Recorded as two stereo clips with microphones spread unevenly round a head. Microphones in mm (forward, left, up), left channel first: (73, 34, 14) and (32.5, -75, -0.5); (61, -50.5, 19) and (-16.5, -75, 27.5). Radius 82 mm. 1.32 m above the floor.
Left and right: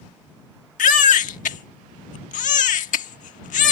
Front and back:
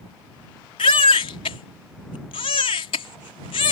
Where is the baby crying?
70° left.